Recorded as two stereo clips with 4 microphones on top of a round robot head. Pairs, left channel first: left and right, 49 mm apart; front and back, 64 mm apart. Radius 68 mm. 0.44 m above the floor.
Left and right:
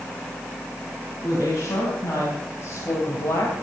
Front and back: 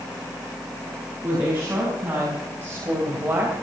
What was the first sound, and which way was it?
A woman speaking, 125° left.